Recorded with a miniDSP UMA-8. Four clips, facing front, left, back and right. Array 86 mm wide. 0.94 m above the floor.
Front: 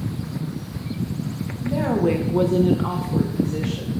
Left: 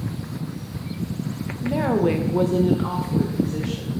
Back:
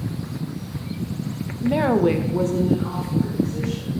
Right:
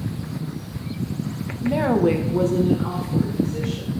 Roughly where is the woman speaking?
Behind.